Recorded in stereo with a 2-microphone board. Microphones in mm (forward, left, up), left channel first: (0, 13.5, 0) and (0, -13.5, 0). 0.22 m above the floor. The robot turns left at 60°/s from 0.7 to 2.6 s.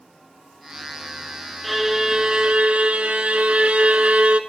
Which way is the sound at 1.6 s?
Straight ahead.